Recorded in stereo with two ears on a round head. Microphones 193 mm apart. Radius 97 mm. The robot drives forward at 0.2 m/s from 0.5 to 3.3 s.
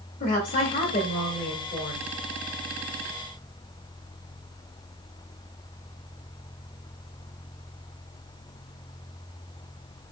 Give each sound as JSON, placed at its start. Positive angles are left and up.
{"t": 0.2, "sound": "a woman speaking", "side_deg": 45, "distance_m": 1.8}